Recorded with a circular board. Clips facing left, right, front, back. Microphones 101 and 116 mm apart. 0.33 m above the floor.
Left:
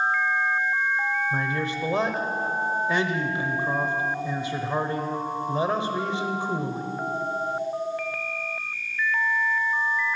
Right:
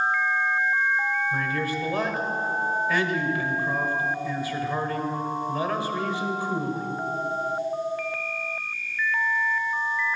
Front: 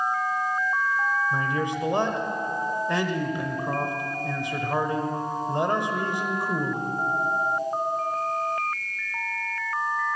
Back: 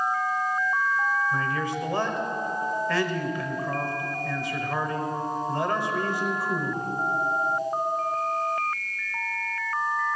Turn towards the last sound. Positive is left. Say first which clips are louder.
# even, front 1 dB
turn(degrees=45)